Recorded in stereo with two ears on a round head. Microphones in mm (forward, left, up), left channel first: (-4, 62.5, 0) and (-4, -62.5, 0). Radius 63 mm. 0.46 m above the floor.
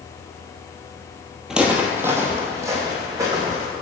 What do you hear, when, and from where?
1.5 s footsteps: 5° right (ahead or behind), 0.7 m; by 3.7 s 30° right (ahead or behind), 2 m